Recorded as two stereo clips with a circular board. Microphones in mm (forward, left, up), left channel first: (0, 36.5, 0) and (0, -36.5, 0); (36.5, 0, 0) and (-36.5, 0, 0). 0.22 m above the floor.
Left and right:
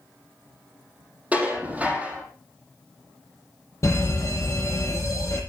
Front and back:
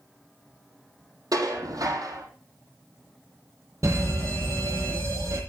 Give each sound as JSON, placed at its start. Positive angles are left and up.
{"t": 1.3, "sound": "dishes clattering", "azimuth_deg": -160, "distance_m": 5.0}
{"t": 3.8, "sound": "a fire alarm", "azimuth_deg": 135, "distance_m": 9.5}